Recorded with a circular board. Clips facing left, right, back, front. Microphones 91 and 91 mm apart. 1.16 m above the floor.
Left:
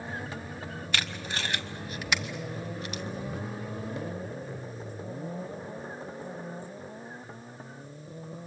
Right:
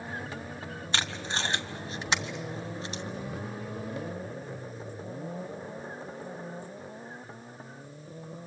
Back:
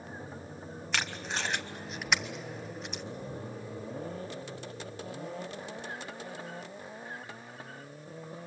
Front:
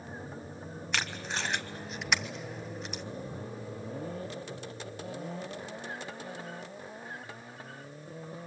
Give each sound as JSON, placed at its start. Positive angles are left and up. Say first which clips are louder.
{"t": 0.9, "sound": "tape being pulled", "louder": "right 2 dB, even", "azimuth_deg": -90, "distance_m": 1.1}